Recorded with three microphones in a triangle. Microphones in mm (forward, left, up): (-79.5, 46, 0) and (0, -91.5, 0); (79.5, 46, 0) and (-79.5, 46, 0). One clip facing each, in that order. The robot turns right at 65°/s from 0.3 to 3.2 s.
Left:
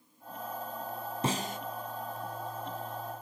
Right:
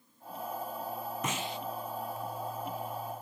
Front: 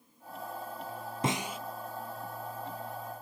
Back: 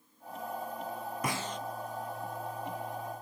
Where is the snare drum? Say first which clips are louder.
Left 6 dB, front 4 dB; 65° left, 0.5 m; by 1.6 s 85° left, 0.5 m.